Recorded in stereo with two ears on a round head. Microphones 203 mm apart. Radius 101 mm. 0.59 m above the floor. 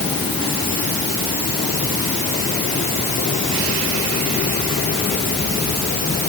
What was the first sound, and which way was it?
Only background noise.